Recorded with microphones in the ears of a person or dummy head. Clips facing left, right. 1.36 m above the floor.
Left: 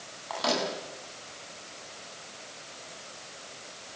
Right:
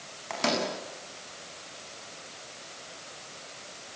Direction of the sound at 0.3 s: 25° right (ahead or behind).